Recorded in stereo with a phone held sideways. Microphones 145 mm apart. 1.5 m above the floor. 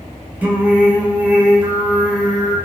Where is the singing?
10° right (ahead or behind), 0.9 m.